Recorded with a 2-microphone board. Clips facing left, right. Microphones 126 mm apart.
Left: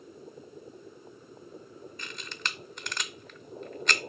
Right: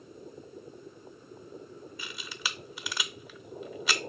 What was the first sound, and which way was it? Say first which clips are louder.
A camera shutter: left 1 dB; 5° right (ahead or behind).